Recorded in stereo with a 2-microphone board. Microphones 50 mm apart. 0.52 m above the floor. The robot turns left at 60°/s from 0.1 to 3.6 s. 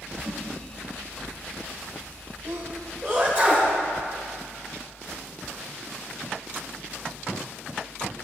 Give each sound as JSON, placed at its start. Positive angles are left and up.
{"t": 0.2, "sound": "a whoosh", "side_deg": -55, "distance_m": 2.0}
{"t": 2.5, "sound": "a sneeze", "side_deg": -65, "distance_m": 1.8}